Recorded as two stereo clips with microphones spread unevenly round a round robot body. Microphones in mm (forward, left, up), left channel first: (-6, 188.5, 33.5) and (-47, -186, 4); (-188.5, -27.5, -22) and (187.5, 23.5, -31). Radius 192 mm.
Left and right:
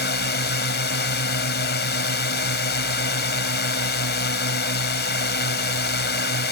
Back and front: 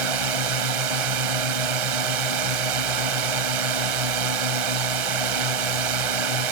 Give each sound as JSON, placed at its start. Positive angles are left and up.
{"t": 0.0, "sound": "a drone", "azimuth_deg": 20}